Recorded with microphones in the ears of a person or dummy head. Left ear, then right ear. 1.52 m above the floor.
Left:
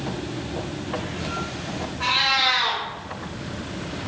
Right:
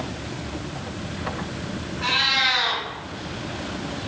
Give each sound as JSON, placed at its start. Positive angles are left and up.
{"t": 2.0, "sound": "a cat meowing", "side_deg": 40, "distance_m": 1.4}